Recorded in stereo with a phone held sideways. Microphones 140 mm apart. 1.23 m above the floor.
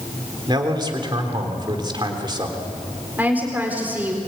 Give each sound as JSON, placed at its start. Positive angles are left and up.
{"t": 0.5, "sound": "a man speaking", "side_deg": -35, "distance_m": 3.5}
{"t": 3.2, "sound": "a woman speaking", "side_deg": -15, "distance_m": 4.0}